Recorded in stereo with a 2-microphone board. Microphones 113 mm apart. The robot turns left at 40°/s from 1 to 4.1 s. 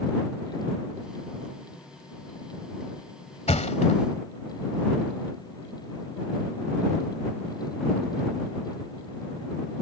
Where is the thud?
75° left (ahead or behind); by 4.0 s 80° left.